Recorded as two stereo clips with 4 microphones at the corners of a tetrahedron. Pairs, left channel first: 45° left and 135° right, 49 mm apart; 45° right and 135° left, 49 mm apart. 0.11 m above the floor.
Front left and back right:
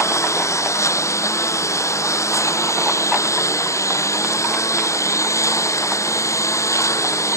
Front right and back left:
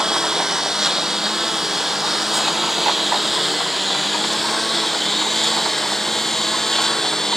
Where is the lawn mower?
55° left; by 7.4 s 40° left.